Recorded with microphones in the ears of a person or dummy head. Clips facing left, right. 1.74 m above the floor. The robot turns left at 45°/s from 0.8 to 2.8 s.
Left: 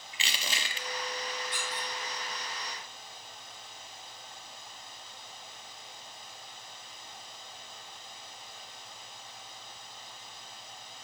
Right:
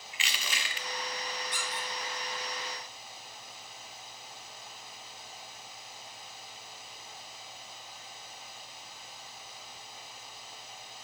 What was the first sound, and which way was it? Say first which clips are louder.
Crushing: left 1 dB; 30° left (ahead or behind).